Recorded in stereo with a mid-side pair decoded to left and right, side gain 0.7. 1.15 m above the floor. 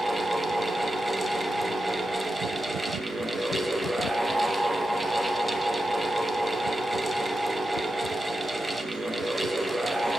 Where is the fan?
10° right, 1.0 m.